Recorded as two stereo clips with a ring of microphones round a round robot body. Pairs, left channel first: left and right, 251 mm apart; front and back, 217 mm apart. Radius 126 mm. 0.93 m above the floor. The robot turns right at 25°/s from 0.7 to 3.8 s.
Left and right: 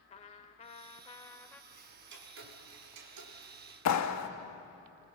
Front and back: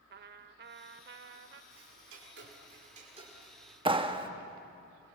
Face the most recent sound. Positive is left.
turn(degrees=115)